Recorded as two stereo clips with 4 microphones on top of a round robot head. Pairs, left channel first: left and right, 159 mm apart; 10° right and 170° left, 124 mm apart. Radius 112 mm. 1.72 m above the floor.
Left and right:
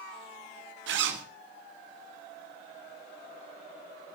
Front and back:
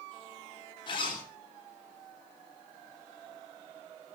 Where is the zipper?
75° right, 3.5 m.